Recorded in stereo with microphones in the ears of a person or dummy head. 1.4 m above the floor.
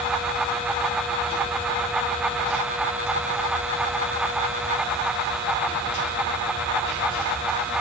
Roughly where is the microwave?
I don't hear a microwave.